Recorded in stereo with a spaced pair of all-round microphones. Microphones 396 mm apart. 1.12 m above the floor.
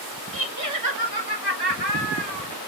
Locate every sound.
0.3 s laughter: 30° right (ahead or behind), 1.5 m; by 2.5 s 80° right, 3.5 m